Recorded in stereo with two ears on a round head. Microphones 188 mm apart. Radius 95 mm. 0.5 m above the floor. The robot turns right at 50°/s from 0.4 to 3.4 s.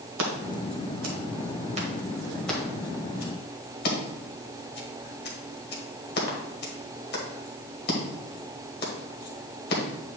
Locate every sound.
0.2 s scissors: 70° right (ahead or behind), 1.5 m; by 9.8 s 45° left (ahead or behind), 1.5 m